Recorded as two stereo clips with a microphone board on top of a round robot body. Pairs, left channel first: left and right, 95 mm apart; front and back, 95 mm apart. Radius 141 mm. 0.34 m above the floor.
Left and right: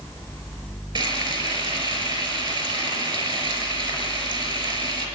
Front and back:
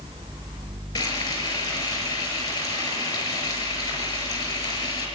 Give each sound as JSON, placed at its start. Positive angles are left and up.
{"t": 0.9, "sound": "frying", "azimuth_deg": -55, "distance_m": 5.0}